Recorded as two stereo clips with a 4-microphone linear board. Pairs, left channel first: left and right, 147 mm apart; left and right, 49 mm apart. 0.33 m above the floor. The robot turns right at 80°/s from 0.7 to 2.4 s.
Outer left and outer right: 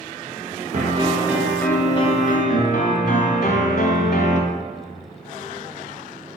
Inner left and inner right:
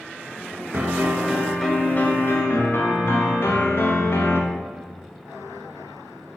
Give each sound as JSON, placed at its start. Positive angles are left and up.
{"t": 0.7, "sound": "a piano", "azimuth_deg": -60, "distance_m": 0.7}